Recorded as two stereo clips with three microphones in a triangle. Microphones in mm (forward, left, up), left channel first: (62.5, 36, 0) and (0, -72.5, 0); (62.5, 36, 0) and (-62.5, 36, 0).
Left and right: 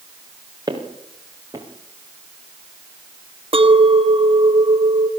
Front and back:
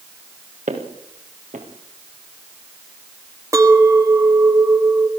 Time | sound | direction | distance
0.7 | footsteps | 175° right | 5 m
3.5 | a clink | 125° right | 1.6 m